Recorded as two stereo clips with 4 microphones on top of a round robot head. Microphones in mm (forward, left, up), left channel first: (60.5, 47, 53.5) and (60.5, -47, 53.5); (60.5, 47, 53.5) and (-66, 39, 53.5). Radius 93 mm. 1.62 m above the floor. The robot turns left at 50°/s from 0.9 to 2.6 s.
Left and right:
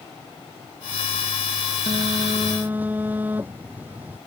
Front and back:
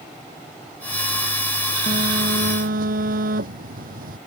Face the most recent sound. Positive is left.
turn(degrees=-170)